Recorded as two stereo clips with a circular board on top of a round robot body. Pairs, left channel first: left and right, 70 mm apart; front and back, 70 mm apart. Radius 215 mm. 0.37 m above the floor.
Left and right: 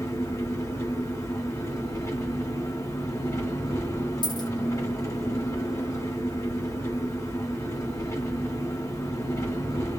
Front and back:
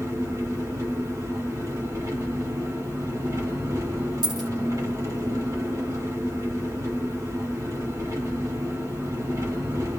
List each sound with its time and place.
0.0 s an engine running: 135° left, 1.6 m
4.2 s a dropped coin: 95° left, 1.5 m